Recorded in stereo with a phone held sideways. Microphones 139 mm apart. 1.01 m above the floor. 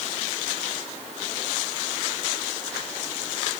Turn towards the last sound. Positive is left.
No sound to turn to.